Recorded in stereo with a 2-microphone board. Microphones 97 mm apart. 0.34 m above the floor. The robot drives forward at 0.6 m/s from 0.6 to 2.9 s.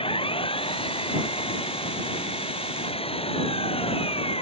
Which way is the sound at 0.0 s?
70° left (ahead or behind).